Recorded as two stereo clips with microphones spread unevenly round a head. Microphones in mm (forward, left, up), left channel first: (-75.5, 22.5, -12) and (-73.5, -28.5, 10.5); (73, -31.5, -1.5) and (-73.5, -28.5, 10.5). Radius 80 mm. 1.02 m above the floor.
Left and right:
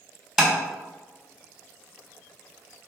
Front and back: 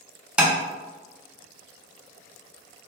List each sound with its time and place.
0.4 s tapping: 110° right, 0.6 m